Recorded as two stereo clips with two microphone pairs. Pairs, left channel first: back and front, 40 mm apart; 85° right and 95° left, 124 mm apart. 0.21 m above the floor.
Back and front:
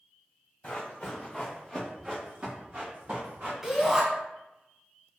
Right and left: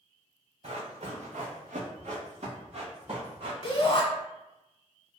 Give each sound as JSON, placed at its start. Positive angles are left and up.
{"t": 0.6, "sound": "running footsteps", "azimuth_deg": 125, "distance_m": 1.3}
{"t": 3.6, "sound": "a shout", "azimuth_deg": -80, "distance_m": 1.3}